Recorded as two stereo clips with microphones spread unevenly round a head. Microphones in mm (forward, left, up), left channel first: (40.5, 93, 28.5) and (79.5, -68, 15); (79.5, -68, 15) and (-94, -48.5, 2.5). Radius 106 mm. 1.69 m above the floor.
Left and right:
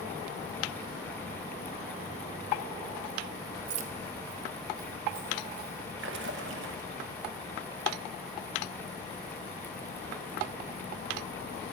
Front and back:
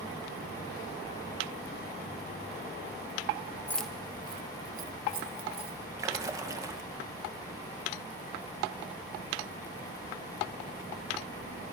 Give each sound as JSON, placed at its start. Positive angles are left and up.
{"t": 3.7, "sound": "keys jangling", "azimuth_deg": -75, "distance_m": 0.8}
{"t": 6.0, "sound": "a splash", "azimuth_deg": -115, "distance_m": 1.3}